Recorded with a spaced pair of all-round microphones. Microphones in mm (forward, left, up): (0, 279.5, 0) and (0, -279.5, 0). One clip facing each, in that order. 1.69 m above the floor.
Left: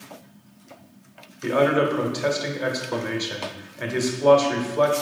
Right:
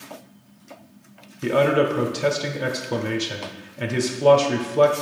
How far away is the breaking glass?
No breaking glass in this recording.